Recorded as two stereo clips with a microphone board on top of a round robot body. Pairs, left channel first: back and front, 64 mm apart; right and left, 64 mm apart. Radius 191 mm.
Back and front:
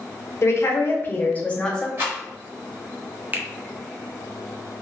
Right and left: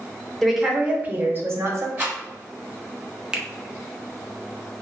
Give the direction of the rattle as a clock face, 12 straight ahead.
11 o'clock.